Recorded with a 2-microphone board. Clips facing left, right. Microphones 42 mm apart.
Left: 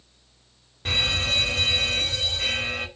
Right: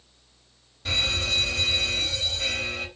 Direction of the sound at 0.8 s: 45° left (ahead or behind).